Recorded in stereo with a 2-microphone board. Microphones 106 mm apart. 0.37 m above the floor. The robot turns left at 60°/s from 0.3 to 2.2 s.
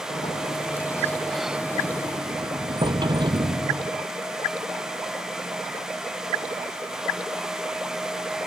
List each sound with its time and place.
0.1 s a sliding door: 65° left; by 4.0 s 50° right